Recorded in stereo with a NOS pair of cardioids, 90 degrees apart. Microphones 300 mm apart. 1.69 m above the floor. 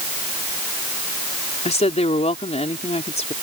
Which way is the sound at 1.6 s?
25° left.